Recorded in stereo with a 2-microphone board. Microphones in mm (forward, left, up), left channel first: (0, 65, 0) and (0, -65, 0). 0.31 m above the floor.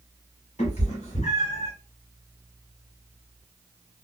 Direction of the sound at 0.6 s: 60° left (ahead or behind).